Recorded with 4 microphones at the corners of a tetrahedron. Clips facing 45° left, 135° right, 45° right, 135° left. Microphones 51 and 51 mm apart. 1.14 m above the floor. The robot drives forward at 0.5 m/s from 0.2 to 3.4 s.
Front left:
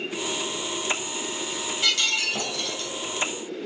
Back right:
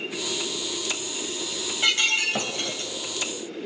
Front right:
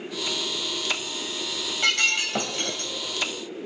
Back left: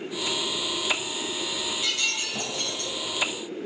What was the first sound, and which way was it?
Breaking glass, 75° right.